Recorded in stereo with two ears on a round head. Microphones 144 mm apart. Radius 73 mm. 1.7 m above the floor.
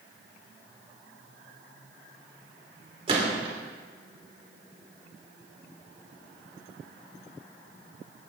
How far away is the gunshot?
About 2.5 m.